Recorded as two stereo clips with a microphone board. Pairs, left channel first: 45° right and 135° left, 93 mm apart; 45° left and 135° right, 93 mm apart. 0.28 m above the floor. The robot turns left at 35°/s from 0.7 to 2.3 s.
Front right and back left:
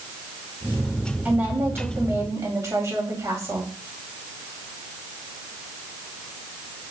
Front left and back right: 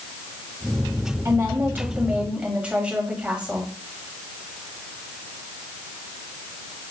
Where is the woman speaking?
170° right, 1.7 m; by 3.7 s 155° left, 1.7 m.